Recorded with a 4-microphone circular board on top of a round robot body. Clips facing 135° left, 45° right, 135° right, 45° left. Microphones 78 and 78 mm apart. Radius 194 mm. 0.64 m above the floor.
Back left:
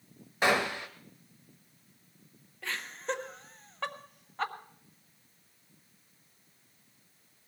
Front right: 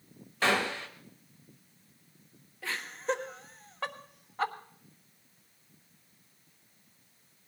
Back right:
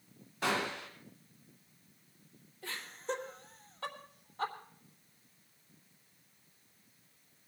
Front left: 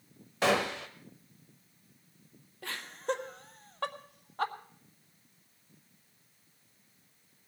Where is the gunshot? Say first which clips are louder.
Back left 1 dB, front left 6 dB; 60° left, 1.0 m.